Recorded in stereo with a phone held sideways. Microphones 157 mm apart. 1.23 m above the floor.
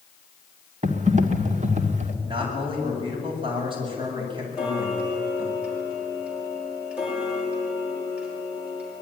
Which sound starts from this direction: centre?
Ticking, at 4.5 s.